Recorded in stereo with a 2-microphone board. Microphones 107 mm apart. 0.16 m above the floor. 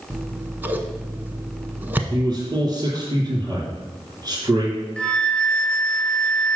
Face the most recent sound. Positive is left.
turn(degrees=10)  # may be behind; listen again after turning